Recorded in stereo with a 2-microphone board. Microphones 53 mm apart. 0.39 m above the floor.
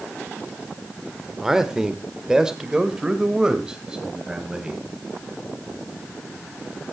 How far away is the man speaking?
About 1.1 m.